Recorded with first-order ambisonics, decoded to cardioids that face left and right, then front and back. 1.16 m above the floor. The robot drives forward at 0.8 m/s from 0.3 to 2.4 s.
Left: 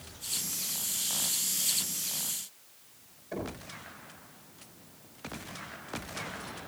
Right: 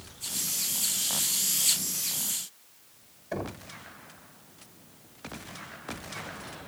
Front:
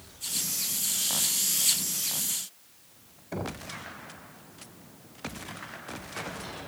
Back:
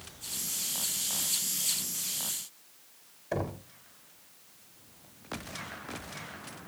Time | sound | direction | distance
3.3 | knocking | 160° right | 3.5 m